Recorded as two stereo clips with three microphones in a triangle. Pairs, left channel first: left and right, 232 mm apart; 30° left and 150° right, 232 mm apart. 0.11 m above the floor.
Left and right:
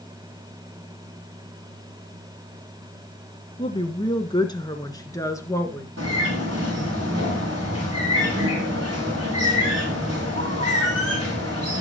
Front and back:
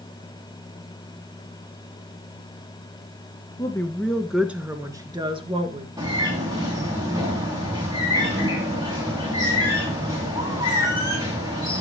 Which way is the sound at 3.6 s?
80° left.